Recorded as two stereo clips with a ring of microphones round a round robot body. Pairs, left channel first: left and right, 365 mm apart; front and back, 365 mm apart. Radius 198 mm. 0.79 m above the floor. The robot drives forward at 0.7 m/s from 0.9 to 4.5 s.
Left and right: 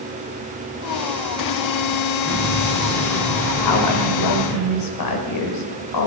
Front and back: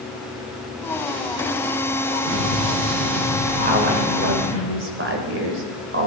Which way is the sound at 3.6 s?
110° left.